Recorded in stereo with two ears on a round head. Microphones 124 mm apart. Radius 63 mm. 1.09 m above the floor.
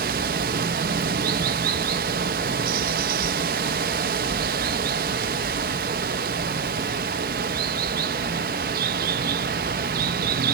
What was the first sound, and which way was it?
Running water, 65° right (ahead or behind).